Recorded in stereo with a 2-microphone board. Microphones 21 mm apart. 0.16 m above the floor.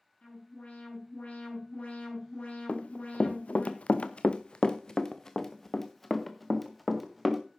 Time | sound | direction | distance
0.2 | an alarm | 80° left | 7.5 m
2.7 | running footsteps | 70° left (ahead or behind) | 1.2 m